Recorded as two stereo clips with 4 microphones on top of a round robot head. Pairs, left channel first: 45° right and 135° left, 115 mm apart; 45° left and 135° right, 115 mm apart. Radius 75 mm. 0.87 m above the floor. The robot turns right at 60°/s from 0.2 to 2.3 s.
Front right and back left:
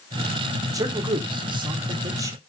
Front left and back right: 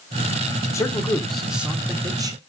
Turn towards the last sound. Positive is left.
turn(degrees=-175)